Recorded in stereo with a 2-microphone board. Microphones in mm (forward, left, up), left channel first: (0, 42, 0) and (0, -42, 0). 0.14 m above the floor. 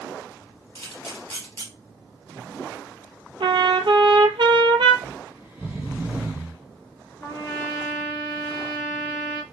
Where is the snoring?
20° right (ahead or behind), 1.1 m.